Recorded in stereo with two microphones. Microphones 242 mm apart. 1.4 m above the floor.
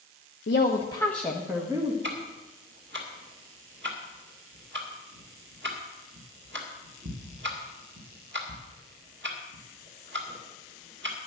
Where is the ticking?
50° right (ahead or behind), 2.0 m.